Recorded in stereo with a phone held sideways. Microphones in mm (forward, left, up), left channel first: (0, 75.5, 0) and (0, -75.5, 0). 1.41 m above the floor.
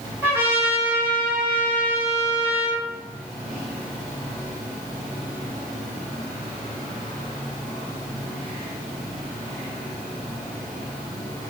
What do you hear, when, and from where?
0.2 s a trumpet: 15° right (ahead or behind), 1.1 m